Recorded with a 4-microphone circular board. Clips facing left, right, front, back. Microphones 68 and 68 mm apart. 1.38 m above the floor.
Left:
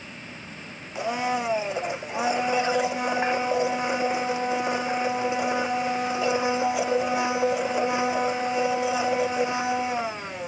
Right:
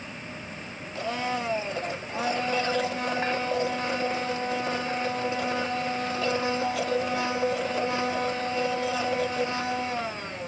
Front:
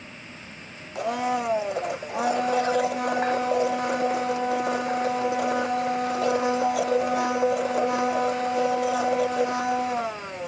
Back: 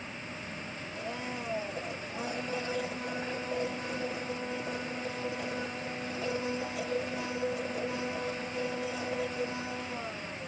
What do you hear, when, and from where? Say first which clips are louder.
0.9 s a blender: left 3 dB, front 14 dB; 15° left